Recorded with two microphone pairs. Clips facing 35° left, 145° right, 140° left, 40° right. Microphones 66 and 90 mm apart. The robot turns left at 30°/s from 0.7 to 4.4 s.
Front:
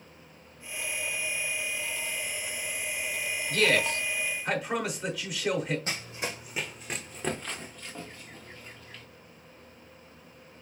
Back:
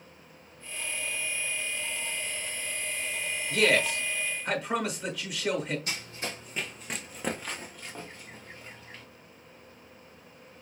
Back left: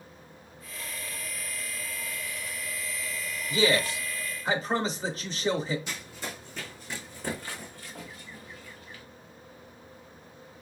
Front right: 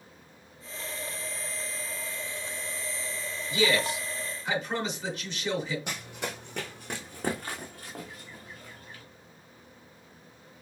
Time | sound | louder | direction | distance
3.5 | a man speaking | back 1 dB, back left 1 dB | 145° left | 1.0 m
5.9 | running footsteps | front 2 dB, front right 2 dB | 25° right | 0.9 m